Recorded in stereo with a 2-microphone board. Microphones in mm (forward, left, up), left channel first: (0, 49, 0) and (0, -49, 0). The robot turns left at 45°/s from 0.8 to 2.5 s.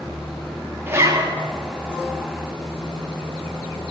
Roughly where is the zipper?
Right.